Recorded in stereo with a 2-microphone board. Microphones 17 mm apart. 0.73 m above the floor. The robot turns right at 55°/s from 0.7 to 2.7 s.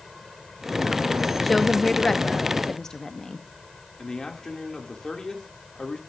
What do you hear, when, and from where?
1.4 s a woman speaking: 5° left, 0.9 m; by 3.4 s 70° left, 0.9 m
4.0 s a man speaking: 45° left (ahead or behind), 2.5 m